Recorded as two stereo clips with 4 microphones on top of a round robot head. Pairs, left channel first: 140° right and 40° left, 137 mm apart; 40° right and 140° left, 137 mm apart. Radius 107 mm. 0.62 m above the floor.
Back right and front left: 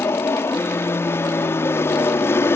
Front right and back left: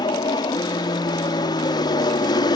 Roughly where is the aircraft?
Right.